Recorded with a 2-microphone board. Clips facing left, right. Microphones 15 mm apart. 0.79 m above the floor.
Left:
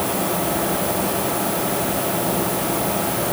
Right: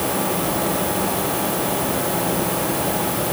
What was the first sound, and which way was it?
Only background noise.